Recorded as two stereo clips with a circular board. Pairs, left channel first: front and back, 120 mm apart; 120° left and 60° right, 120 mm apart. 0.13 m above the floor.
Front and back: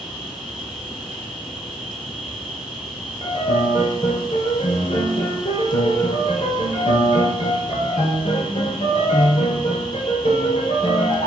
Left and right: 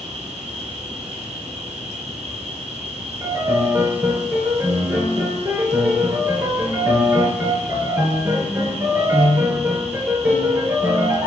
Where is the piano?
5° left, 0.8 m.